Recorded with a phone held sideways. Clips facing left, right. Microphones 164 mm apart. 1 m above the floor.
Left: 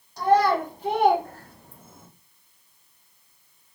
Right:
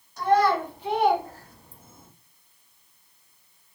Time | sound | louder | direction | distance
0.2 | a child speaking | left 1 dB | 35° left (ahead or behind) | 1.9 m